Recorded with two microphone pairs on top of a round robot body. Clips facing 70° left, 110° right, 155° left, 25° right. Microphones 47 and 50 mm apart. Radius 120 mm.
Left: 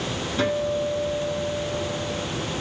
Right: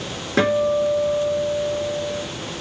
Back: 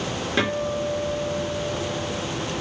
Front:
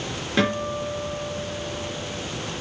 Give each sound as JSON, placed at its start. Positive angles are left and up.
{"t": 0.4, "sound": "a guitar", "azimuth_deg": -115, "distance_m": 5.5}